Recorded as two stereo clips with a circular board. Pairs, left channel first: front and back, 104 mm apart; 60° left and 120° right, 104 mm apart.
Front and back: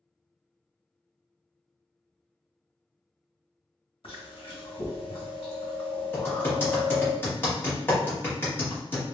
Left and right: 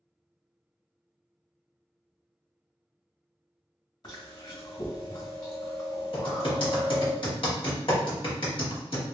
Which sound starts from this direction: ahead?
Chewing, at 4.0 s.